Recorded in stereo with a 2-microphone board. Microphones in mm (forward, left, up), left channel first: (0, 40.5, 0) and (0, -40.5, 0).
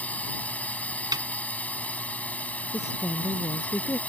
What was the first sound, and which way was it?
A drone, 20° left (ahead or behind).